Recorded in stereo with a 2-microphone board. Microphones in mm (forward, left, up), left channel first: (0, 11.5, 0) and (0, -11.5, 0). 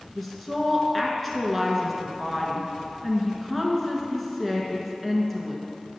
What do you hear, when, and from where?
0.1 s a woman speaking: 10° left (ahead or behind), 1.1 m